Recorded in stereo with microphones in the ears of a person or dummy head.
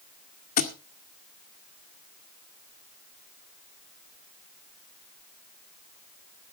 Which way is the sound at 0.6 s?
45° left (ahead or behind).